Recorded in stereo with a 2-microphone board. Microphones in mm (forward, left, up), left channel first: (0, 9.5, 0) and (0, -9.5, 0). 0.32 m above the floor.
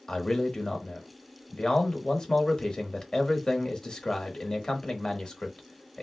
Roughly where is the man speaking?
Left.